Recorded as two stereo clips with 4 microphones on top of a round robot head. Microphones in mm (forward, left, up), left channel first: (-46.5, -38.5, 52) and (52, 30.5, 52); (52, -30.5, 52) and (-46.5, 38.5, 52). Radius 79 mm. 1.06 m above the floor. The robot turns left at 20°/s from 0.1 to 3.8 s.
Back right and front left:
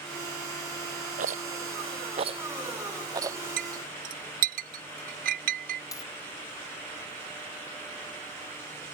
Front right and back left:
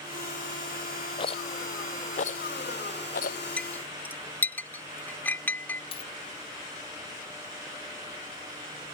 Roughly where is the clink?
Ahead left.